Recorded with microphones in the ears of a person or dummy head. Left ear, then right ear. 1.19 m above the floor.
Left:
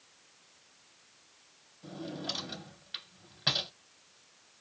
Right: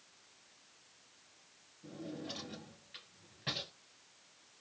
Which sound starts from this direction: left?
A drawer, at 1.8 s.